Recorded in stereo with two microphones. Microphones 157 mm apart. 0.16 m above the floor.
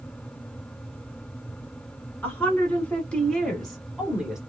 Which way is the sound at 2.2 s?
10° left (ahead or behind).